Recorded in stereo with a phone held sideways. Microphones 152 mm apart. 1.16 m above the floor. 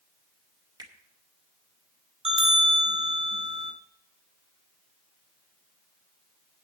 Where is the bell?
40° right (ahead or behind), 2.5 m.